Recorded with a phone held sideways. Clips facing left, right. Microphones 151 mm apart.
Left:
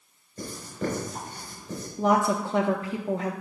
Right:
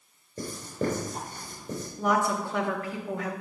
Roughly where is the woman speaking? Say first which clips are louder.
Left 3 dB; left.